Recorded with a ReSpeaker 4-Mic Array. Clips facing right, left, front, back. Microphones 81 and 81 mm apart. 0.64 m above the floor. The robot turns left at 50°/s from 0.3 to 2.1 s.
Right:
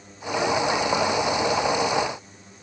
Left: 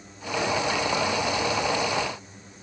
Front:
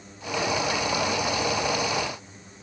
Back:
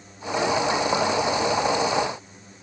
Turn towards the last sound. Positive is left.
No sound to turn to.